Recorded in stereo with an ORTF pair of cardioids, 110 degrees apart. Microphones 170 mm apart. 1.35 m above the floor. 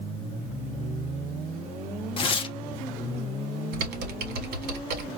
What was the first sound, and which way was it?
Tearing paper, 30° left.